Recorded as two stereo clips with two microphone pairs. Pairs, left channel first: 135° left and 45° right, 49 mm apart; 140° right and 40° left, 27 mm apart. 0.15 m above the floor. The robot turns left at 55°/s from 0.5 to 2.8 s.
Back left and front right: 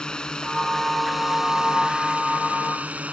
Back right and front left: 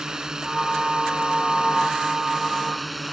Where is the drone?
80° left; by 3.1 s 45° right.